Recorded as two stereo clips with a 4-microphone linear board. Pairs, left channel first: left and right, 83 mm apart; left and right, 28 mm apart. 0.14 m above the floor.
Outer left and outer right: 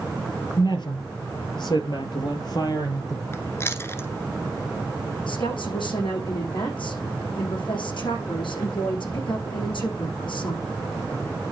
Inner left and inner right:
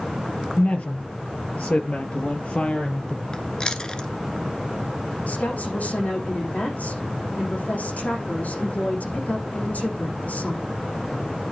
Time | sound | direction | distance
0.6 | a woman speaking | 55° left (ahead or behind) | 3 m
3.3 | chewing | 30° left (ahead or behind) | 1.3 m
5.3 | a woman speaking | 80° left | 7 m